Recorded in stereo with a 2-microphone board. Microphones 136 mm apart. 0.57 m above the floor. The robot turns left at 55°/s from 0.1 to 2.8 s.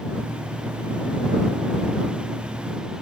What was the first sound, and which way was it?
Only background noise.